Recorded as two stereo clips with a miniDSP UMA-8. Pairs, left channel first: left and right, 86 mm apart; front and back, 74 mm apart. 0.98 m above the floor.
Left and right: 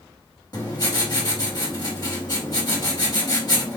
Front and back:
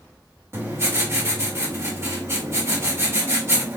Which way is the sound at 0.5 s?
130° left.